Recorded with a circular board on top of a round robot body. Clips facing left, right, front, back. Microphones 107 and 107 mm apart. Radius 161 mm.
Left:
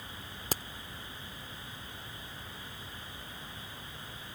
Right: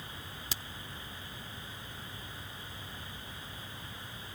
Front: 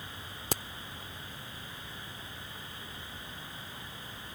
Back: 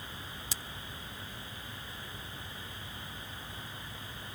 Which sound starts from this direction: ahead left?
A crack, at 0.5 s.